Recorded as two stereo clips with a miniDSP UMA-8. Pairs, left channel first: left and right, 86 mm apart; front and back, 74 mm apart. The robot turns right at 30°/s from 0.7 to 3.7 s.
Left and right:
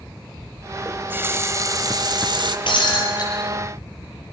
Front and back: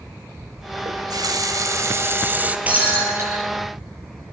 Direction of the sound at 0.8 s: 160° right.